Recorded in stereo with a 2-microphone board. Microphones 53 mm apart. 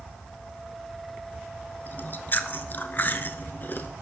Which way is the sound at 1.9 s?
40° left (ahead or behind).